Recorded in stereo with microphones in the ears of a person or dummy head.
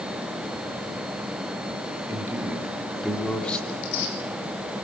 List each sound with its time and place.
2.1 s a man speaking: 10° right (ahead or behind), 3.5 m; by 3.6 s 10° left (ahead or behind), 3 m
3.7 s tearing paper: 85° left, 5.5 m